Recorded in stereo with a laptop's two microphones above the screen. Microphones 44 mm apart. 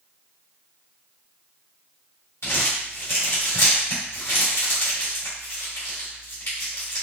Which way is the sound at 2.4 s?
75° left (ahead or behind).